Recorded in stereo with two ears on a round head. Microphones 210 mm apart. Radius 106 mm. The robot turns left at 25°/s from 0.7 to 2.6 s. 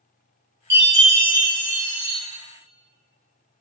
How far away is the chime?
About 1.3 m.